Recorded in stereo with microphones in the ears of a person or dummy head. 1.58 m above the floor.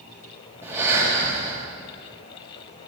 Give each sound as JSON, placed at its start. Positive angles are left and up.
{"t": 0.6, "sound": "breathing", "side_deg": -15, "distance_m": 2.0}